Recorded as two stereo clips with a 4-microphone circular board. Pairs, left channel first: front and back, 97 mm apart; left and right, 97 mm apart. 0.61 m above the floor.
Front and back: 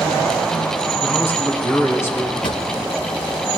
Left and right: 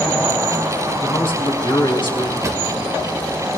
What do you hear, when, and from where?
1.0 s a man speaking: 60° left, 4 m
2.4 s a drawer: 30° right, 0.8 m